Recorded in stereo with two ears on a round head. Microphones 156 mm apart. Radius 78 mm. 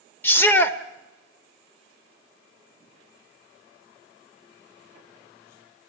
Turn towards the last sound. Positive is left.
turn(degrees=15)  # may be behind; listen again after turning